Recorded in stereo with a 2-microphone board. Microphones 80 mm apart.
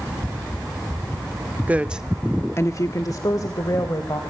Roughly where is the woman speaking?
Right.